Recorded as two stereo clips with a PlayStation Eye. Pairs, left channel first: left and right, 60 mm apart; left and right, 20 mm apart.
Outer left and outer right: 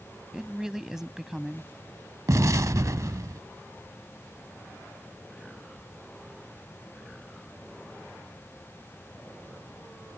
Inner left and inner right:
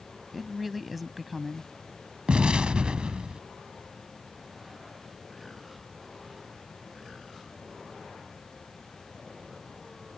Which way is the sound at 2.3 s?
65° right (ahead or behind).